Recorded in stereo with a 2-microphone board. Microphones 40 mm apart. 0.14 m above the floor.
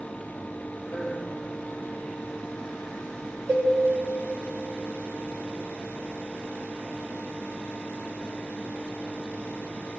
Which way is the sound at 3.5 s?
75° right (ahead or behind).